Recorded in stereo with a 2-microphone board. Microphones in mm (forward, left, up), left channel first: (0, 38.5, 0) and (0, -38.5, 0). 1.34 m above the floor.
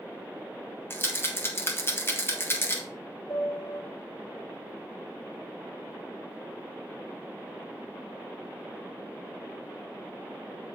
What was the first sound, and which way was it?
A rattle, 30° left (ahead or behind).